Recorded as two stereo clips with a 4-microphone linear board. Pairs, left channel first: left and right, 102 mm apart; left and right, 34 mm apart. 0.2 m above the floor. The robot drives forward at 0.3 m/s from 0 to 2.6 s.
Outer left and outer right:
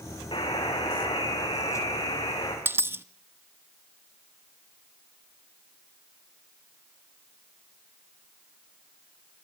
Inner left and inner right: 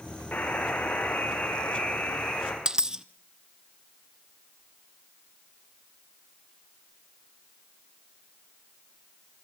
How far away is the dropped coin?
About 1.0 m.